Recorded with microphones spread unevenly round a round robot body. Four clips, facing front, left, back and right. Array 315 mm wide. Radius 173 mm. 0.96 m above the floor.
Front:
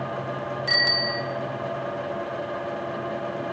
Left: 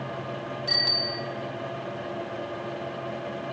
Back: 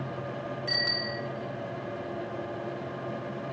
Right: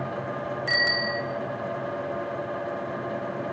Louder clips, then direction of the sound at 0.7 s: Right 5 dB, front 7 dB; 60° right.